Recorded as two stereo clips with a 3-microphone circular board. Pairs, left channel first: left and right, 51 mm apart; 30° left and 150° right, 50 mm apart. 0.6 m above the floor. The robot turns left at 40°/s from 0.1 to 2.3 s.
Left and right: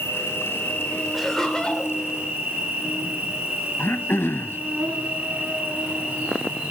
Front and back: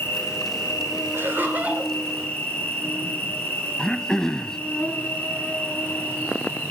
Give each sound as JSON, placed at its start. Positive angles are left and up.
{"t": 0.0, "sound": "an insect", "azimuth_deg": 65, "distance_m": 3.5}
{"t": 1.1, "sound": "laughter", "azimuth_deg": 180, "distance_m": 2.5}
{"t": 3.8, "sound": "throat clearing", "azimuth_deg": 105, "distance_m": 0.6}